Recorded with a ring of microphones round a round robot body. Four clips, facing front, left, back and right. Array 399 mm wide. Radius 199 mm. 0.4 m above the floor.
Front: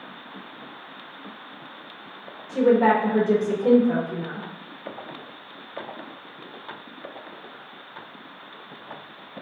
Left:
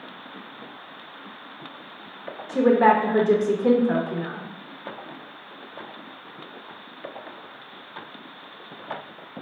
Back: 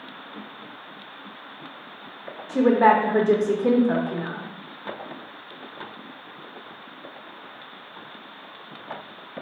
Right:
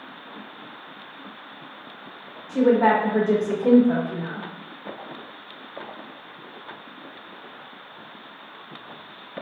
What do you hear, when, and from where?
2.5 s a woman speaking: 135° left, 0.8 m